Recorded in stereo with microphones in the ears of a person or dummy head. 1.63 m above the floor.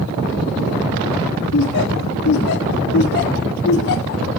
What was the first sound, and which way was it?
Laughter, 55° left (ahead or behind).